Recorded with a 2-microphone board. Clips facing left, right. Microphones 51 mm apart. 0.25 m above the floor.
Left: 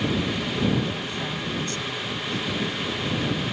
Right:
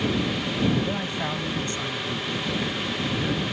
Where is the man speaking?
30° right (ahead or behind); by 3.4 s 20° right (ahead or behind).